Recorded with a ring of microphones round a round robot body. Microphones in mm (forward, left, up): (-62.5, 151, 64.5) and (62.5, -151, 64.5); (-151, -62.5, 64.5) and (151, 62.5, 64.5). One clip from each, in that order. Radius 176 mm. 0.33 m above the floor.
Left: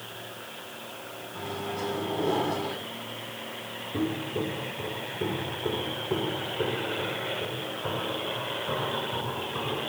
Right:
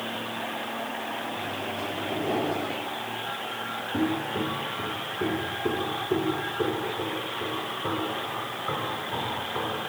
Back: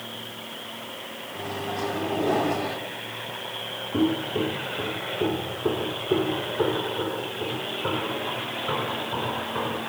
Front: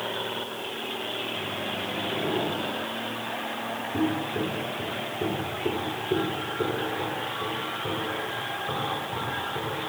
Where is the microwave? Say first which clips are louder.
Right 2 dB, even; 175° right, 2 m.